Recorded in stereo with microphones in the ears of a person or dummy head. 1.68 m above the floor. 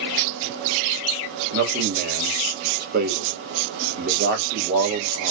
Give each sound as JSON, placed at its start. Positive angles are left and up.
{"t": 1.5, "sound": "a man speaking", "side_deg": -50, "distance_m": 1.1}